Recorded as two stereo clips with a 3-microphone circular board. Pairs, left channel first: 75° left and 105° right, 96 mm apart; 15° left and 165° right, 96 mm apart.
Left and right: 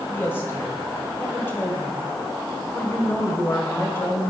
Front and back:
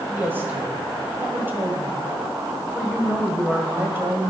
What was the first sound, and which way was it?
A woman speaking, 135° left.